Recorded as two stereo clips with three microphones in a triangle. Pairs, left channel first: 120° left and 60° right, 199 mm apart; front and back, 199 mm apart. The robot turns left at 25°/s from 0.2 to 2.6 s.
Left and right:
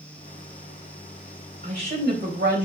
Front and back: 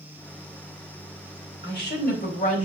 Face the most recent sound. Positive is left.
turn(degrees=-45)